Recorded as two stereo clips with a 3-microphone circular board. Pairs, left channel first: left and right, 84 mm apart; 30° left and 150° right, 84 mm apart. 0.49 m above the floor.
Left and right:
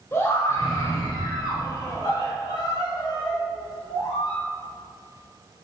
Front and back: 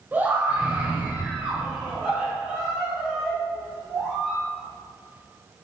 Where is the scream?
145° left, 2 m; by 4.4 s 125° left, 5.5 m.